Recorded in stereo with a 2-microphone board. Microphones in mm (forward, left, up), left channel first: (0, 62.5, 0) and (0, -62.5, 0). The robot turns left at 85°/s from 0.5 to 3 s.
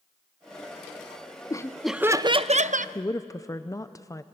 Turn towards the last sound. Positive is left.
turn(degrees=25)  # may be behind; listen again after turning